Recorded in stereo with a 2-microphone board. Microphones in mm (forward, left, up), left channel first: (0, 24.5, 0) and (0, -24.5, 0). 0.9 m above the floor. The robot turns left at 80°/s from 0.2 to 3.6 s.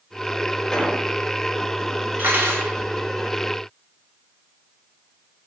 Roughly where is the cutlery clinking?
Ahead right.